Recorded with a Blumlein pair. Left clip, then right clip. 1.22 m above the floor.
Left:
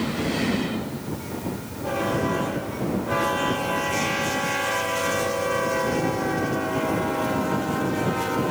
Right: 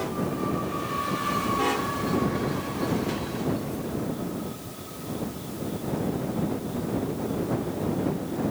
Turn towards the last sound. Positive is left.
No sound to turn to.